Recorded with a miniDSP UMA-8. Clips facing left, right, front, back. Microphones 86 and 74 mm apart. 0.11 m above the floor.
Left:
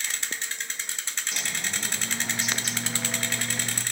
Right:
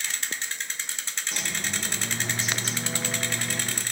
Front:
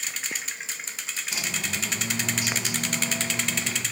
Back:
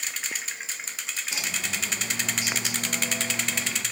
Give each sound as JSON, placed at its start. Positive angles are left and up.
{"t": 1.3, "sound": "a bird", "azimuth_deg": -120, "distance_m": 2.0}